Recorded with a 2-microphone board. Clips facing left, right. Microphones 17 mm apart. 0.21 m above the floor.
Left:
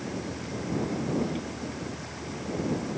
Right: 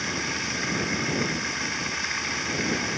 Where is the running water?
75° right (ahead or behind).